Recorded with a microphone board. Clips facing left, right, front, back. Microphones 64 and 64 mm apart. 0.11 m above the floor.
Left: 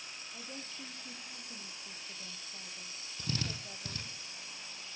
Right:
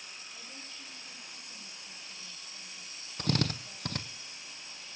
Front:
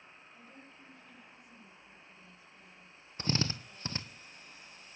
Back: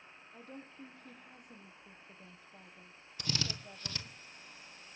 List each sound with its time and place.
0.3 s a woman speaking: 145° left, 3 m
3.2 s a drill: 60° right, 1.5 m